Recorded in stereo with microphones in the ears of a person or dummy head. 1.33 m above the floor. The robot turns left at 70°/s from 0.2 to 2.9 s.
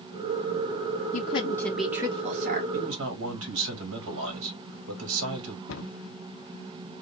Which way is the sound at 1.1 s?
45° left.